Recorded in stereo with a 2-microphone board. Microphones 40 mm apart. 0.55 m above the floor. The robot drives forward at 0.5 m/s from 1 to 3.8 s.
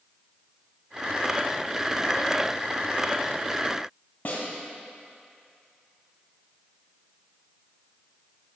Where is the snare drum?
45° left (ahead or behind), 3 m.